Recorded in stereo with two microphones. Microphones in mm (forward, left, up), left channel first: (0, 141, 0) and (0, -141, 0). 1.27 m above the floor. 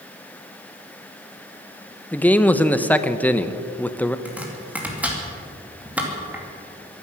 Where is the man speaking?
5° left (ahead or behind), 0.7 m.